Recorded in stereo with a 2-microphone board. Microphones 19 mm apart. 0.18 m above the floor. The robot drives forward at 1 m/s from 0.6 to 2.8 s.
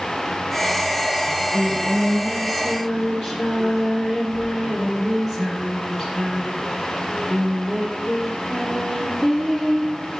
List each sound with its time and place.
1.3 s singing: 35° right (ahead or behind), 2.5 m; by 10.2 s 20° right (ahead or behind), 3.5 m